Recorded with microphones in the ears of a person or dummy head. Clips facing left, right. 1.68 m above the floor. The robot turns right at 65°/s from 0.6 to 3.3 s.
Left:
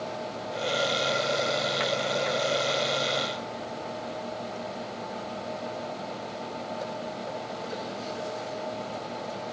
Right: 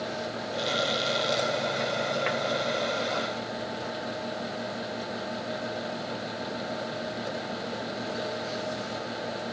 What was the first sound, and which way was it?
Only background noise.